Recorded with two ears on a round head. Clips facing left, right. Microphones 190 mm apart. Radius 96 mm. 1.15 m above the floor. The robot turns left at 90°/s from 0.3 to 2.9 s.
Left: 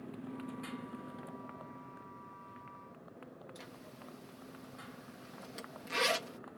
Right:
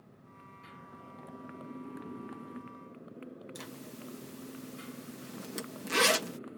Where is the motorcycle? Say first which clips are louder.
Left 13 dB; 90° left; by 6.6 s 145° right.